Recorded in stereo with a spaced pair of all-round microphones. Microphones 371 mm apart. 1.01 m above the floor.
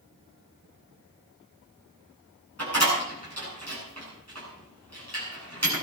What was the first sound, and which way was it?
A door slam, 45° right (ahead or behind).